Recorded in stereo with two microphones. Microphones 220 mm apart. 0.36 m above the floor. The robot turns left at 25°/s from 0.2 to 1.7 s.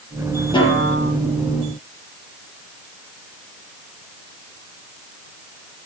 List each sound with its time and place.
0.5 s a snare drum: 20° left (ahead or behind), 5 m; by 1.1 s 5° left (ahead or behind), 5 m